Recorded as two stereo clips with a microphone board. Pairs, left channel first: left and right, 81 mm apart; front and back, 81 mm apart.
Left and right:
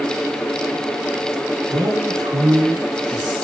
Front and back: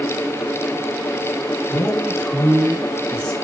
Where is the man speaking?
65° right, 6.5 m; by 3.4 s 75° right, 6 m.